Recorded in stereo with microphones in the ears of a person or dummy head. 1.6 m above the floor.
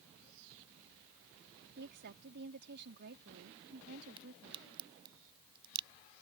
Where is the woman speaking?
60° right (ahead or behind).